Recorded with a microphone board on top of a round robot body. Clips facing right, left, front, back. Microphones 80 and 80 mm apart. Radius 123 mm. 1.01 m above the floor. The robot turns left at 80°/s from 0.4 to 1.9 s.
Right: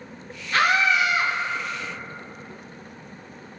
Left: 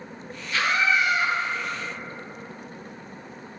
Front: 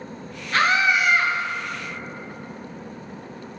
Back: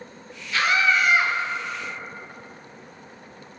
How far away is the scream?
About 1.4 m.